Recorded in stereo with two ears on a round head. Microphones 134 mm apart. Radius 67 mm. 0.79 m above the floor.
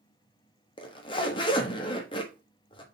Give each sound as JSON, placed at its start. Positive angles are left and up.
{"t": 0.8, "sound": "a zipper", "side_deg": 35, "distance_m": 1.2}